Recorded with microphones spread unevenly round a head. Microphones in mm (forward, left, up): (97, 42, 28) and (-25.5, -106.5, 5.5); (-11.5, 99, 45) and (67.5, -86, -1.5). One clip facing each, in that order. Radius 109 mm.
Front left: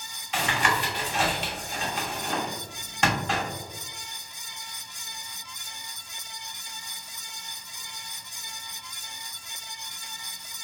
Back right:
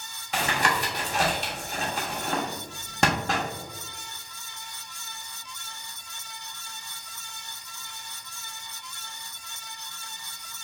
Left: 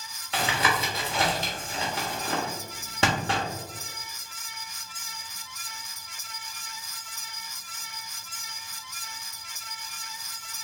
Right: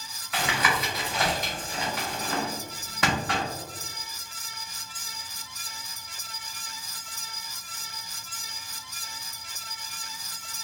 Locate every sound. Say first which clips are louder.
0.3 s tapping: back right 1 dB, left 1 dB; straight behind, 1.2 m